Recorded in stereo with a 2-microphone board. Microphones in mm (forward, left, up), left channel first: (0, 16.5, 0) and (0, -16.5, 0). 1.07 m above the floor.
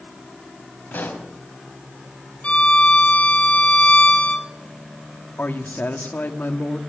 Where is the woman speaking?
80° left, 2 m.